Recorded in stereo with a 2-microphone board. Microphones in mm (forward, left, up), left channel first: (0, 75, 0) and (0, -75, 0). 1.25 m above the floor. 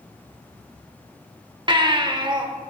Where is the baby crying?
30° right (ahead or behind), 1.1 m.